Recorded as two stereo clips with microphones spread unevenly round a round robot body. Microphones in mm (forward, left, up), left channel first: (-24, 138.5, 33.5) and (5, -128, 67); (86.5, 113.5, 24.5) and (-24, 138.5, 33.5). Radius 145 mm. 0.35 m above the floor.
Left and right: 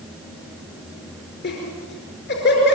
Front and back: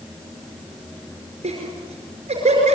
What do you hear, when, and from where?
1.4 s laughter: 145° left, 5 m